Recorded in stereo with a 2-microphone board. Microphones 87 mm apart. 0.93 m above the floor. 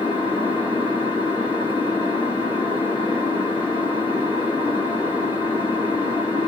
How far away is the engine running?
About 1.6 m.